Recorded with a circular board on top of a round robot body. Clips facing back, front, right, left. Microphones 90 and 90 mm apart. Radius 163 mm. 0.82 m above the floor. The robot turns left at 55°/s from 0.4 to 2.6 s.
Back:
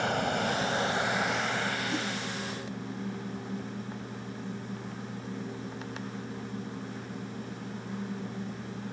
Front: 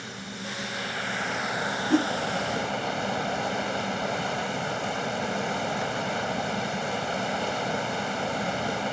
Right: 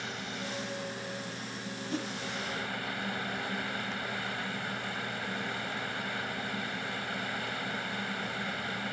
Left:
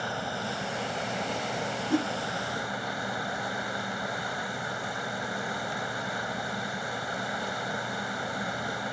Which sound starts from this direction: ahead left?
A whoosh, at 1.9 s.